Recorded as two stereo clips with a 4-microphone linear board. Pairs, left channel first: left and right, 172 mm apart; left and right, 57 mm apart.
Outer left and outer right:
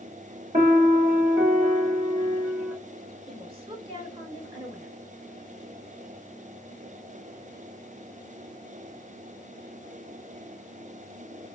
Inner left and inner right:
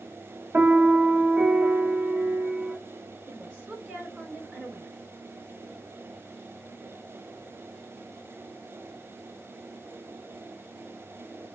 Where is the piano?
40° right (ahead or behind), 2.0 m.